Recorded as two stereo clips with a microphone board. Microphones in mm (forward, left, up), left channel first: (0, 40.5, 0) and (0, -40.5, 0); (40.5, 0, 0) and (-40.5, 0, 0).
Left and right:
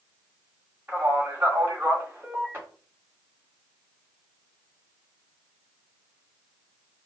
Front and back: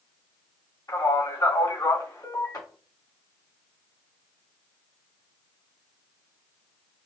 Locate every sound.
0.9 s a man speaking: 30° right, 1.9 m